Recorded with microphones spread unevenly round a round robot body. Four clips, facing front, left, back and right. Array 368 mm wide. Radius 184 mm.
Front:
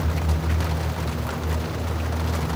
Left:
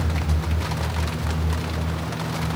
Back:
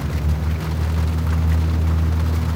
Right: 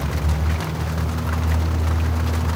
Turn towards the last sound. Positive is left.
No sound to turn to.